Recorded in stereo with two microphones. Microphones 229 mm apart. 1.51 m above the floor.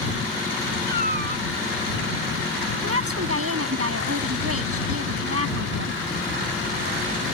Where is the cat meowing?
40° right (ahead or behind).